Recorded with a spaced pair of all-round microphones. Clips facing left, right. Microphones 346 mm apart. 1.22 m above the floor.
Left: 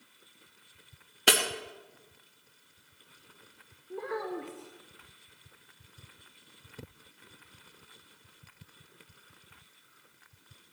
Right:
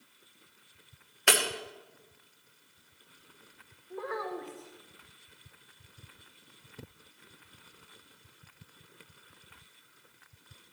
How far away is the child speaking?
About 1.0 m.